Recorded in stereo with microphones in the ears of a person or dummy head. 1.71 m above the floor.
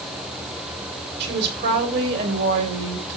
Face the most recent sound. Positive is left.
turn(degrees=-55)  # may be behind; listen again after turning